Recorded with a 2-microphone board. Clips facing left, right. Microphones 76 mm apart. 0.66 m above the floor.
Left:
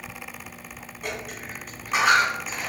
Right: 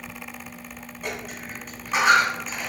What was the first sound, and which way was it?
A dropped coin, centre (ahead or behind).